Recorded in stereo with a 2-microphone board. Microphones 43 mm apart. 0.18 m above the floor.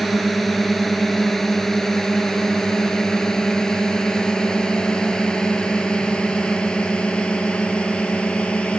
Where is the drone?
Centre (ahead or behind); by 8.8 s 25° left (ahead or behind).